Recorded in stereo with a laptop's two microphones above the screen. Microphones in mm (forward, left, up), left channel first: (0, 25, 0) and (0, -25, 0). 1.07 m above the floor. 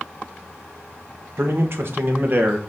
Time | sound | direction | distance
1.4 | a man speaking | 60° right (ahead or behind) | 1.3 m